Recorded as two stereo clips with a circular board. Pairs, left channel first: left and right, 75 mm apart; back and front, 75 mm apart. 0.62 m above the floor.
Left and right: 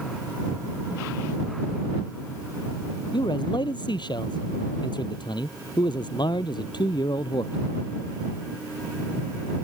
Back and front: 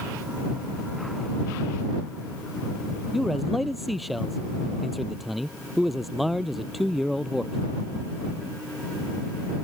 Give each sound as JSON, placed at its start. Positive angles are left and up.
{"t": 3.1, "sound": "a man speaking", "azimuth_deg": 90}